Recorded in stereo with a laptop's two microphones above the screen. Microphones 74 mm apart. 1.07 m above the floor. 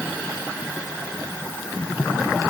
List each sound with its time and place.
Only background noise.